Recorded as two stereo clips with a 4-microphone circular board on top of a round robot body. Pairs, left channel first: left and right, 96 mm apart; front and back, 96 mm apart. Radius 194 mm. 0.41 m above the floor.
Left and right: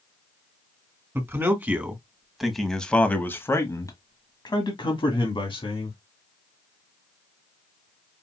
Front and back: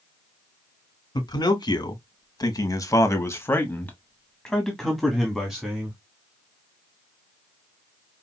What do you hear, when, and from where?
1.1 s a man speaking: 35° right, 1.8 m; by 6.0 s 100° left, 2 m